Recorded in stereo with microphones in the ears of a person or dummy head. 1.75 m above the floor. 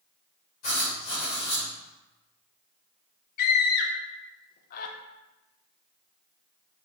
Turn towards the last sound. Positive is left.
turn(degrees=45)  # may be behind; listen again after turning